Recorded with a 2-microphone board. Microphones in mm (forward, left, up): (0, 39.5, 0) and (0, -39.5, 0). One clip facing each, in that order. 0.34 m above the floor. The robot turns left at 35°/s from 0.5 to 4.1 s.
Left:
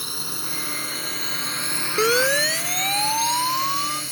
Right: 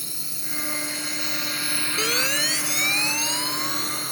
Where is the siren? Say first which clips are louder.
Left 9 dB; 40° left (ahead or behind); by 4.0 s 45° left (ahead or behind).